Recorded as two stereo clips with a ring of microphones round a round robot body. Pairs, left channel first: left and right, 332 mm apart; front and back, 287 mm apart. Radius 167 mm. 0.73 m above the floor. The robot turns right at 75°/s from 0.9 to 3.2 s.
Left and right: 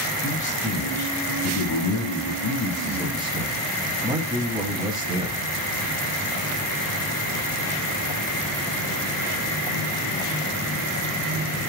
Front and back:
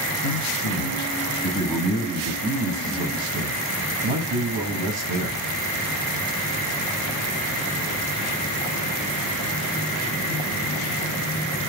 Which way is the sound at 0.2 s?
20° left.